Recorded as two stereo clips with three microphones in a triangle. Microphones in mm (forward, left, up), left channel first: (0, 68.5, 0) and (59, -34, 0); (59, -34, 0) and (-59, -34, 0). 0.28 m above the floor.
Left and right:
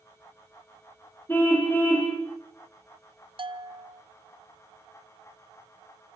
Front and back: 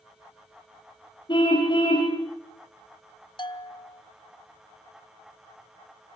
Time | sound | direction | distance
1.3 | a car horn | 45° left | 6.5 m
3.4 | a bell | 35° right | 1.3 m